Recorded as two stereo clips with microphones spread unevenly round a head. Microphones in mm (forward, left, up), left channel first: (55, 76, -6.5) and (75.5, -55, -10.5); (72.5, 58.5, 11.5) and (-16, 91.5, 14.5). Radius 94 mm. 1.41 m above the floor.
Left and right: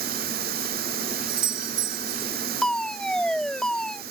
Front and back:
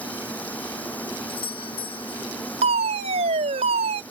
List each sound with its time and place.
0.0 s running water: 105° right
1.3 s a doorbell: 75° right
2.6 s a fire alarm: 175° right